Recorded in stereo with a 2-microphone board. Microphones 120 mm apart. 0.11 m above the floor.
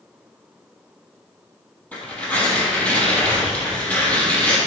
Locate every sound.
1.9 s tearing paper: 10° left (ahead or behind), 3 m